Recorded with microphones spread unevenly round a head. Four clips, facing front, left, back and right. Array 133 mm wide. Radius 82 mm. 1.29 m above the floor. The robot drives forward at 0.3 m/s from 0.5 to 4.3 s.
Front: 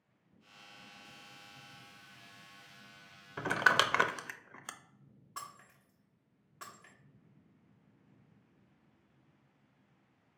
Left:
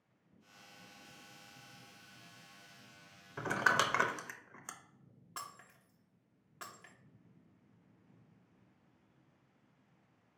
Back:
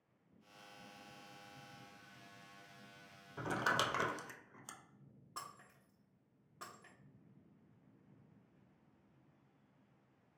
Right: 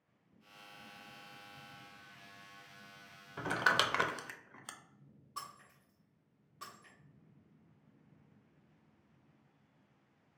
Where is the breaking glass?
125° left, 1.0 m.